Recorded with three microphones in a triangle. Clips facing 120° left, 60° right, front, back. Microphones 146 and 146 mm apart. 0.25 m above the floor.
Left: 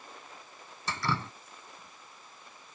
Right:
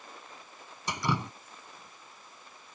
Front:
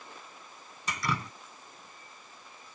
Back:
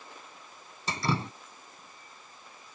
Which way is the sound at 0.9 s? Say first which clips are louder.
Right 2 dB, back 3 dB; 130° right.